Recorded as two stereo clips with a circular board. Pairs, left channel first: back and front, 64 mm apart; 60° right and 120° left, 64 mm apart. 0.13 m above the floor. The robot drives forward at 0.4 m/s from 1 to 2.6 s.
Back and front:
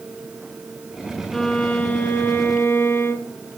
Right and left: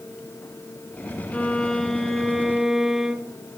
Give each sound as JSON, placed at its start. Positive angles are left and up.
{"t": 1.3, "sound": "a violin", "azimuth_deg": -100, "distance_m": 0.5}